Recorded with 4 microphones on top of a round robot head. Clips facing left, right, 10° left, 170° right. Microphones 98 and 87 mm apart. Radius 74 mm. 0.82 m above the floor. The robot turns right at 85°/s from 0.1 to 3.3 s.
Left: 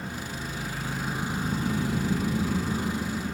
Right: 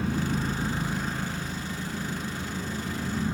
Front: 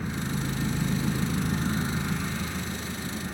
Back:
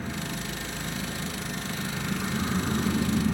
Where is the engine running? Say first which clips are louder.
Right 7 dB, front 3 dB; 80° right, 2 m; by 3.4 s 165° right, 2 m.